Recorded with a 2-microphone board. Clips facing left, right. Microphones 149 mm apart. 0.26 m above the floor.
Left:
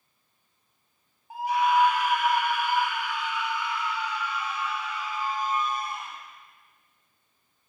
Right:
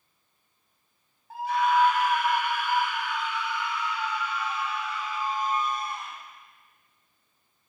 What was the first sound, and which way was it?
A scream, 15° left (ahead or behind).